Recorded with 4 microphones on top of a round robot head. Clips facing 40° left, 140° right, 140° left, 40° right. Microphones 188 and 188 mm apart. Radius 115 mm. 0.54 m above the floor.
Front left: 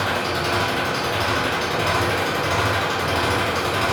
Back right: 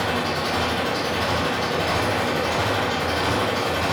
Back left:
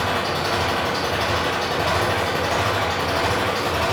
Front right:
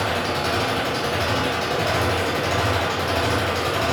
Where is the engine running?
25° left, 1.7 m.